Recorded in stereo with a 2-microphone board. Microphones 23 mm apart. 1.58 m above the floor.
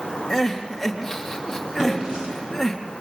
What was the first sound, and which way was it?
Crying, 10° left (ahead or behind).